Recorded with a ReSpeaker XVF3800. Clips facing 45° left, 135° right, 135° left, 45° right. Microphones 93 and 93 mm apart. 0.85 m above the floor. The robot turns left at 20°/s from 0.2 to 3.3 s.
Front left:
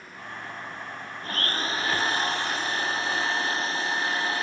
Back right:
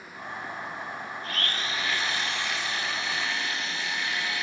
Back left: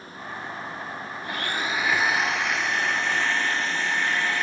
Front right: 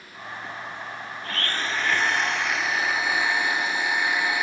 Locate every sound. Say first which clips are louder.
1.2 s a blender: front left 5 dB, back left 1 dB; 70° left, 0.7 m; by 4.4 s 25° left, 0.7 m